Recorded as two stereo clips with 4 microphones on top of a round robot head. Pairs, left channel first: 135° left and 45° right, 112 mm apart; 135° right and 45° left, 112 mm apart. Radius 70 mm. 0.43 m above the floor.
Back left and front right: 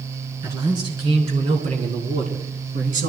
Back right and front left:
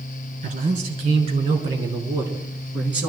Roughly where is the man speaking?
Ahead.